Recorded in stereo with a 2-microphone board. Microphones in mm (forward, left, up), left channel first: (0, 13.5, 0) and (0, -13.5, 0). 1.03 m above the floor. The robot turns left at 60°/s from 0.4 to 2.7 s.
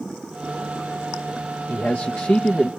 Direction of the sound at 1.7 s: 100° left.